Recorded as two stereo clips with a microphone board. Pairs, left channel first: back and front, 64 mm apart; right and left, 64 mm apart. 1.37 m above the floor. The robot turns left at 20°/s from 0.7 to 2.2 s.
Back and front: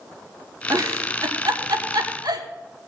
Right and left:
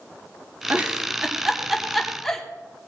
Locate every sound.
0.7 s a giggle: 25° left, 1.3 m; by 2.5 s 5° right, 1.3 m